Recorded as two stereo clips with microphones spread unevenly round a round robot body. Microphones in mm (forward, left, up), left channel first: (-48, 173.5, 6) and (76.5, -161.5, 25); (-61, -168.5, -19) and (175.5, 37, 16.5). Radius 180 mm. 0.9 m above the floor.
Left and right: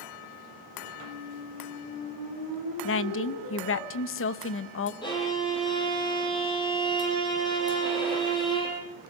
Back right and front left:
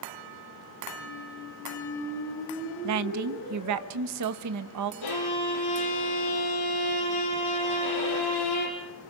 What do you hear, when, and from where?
1.0 s a squeak: 150° left, 9.5 m
2.8 s a woman speaking: 70° left, 1.0 m
5.0 s a violin: 170° right, 7 m